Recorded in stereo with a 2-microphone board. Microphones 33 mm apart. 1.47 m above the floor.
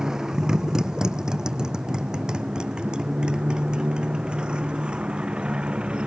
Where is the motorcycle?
20° right (ahead or behind); by 6.1 s 35° right (ahead or behind).